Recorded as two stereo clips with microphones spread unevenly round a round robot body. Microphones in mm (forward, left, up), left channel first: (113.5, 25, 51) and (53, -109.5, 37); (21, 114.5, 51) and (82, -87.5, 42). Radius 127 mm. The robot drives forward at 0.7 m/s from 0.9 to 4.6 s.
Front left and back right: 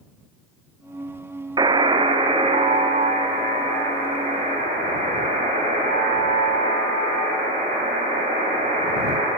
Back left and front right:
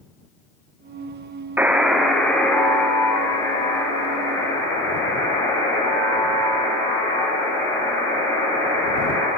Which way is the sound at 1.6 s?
145° right.